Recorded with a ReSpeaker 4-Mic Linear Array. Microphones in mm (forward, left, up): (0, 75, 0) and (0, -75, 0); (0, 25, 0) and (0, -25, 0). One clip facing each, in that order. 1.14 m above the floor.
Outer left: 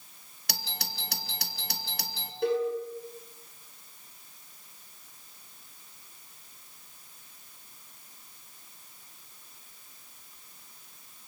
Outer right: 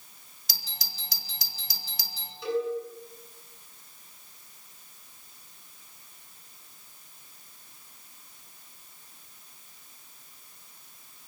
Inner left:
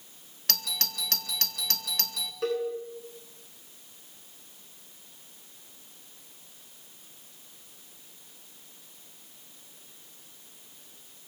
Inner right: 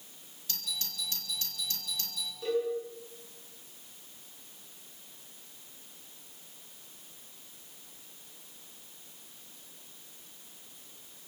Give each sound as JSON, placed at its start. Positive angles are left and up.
{"t": 0.5, "sound": "a doorbell", "side_deg": 65, "distance_m": 2.0}
{"t": 2.4, "sound": "a cowbell", "side_deg": 55, "distance_m": 8.5}